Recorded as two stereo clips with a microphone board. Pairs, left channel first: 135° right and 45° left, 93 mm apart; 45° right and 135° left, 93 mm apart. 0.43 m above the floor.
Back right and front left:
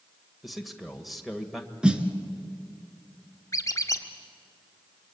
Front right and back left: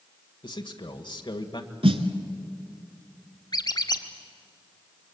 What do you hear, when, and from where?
0.4 s a man speaking: 45° right, 1.5 m
1.8 s a snare drum: 125° left, 1.4 m
3.5 s a squeak: 80° right, 1.4 m